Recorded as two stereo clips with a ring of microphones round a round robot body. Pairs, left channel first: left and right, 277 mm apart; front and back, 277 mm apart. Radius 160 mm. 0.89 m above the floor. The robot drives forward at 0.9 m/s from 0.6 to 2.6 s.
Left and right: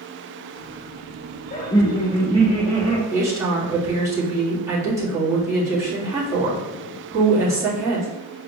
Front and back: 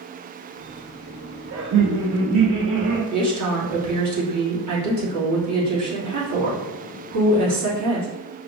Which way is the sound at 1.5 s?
145° left.